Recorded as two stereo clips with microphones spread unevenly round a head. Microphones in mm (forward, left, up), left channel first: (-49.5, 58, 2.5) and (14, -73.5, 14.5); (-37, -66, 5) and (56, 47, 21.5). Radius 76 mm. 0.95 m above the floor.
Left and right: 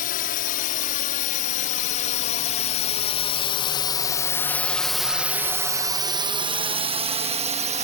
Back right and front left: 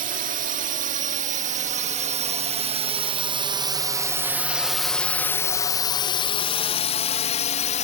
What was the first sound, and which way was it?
A drone, 90° left.